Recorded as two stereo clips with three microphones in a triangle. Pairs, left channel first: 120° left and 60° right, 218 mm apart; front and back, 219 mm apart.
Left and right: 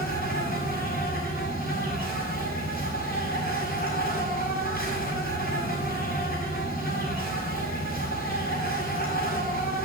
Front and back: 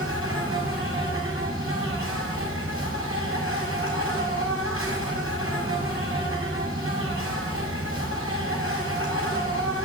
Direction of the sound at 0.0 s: 165° left.